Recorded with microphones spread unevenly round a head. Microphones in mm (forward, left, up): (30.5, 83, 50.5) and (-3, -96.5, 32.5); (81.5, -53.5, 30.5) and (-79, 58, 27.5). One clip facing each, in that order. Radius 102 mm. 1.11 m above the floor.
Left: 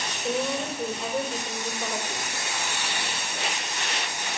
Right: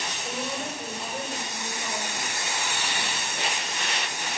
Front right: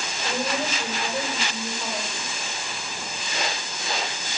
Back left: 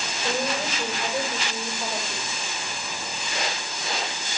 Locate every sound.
0.2 s a woman speaking: 60° left, 5.5 m